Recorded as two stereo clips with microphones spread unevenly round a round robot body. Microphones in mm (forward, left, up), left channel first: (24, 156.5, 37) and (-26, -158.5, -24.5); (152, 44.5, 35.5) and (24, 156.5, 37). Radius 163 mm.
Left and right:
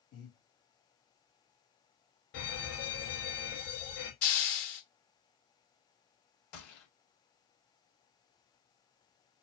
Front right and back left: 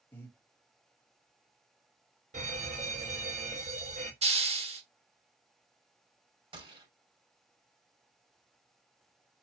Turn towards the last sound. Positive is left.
turn(degrees=80)